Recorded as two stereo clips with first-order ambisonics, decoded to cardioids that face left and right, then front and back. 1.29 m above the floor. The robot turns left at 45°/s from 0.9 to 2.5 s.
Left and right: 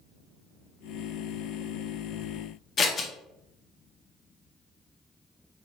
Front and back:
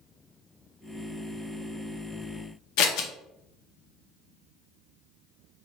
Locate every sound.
2.8 s scissors: 20° left, 0.9 m